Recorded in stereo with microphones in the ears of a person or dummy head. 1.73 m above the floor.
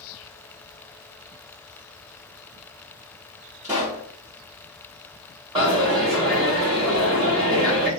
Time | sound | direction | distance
3.6 | a pop | 15° right (ahead or behind) | 0.7 m
5.5 | a dropped coin | 20° right (ahead or behind) | 1.0 m